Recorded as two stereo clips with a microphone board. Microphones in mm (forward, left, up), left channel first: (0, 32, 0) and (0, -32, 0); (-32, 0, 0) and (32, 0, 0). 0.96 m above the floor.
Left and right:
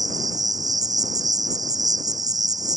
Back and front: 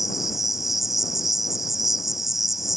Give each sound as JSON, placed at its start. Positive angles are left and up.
{"t": 0.0, "sound": "an insect", "azimuth_deg": -90}